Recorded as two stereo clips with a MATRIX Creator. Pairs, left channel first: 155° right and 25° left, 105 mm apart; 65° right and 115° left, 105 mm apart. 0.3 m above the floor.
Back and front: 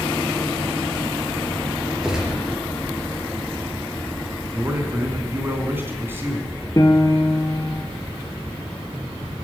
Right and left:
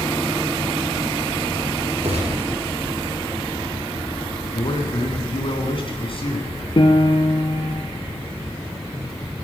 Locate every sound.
2.0 s a gunshot: 105° left, 4.5 m
4.5 s a man speaking: 45° right, 3.5 m
6.8 s a piano: 105° right, 1.9 m